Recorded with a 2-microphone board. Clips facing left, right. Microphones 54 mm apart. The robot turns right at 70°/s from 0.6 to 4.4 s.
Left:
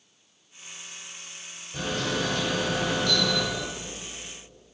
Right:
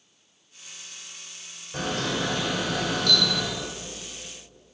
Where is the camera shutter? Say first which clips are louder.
Right 1 dB; 70° right, 8 m; by 3.4 s 50° left, 8 m.